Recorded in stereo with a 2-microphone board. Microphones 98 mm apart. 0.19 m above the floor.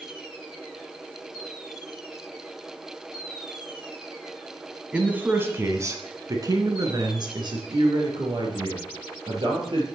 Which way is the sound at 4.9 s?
10° right (ahead or behind).